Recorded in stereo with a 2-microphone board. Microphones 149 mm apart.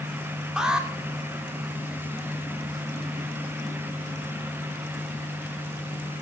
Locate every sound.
0.6 s an alarm: 5° right (ahead or behind), 3 m